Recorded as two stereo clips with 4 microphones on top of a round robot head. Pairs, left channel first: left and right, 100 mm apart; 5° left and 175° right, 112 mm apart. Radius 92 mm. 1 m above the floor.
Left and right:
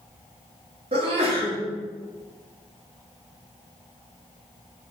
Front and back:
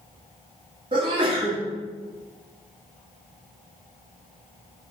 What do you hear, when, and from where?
0.9 s a sneeze: 125° right, 1.8 m